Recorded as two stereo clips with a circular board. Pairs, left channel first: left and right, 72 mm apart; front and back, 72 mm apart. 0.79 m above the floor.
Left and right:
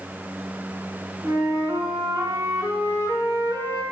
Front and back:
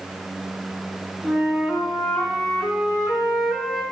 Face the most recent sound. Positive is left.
turn(degrees=-90)